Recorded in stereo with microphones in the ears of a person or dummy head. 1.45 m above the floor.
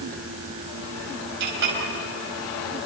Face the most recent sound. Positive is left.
turn(degrees=-60)  # may be behind; listen again after turning